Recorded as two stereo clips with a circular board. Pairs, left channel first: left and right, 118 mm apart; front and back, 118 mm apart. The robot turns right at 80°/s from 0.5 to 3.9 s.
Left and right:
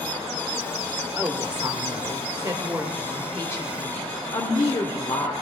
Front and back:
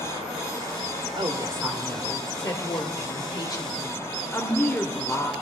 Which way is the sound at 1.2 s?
155° right.